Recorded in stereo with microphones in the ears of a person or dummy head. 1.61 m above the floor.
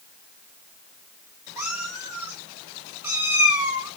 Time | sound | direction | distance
1.6 | a cat meowing | 10° right (ahead or behind) | 2.5 m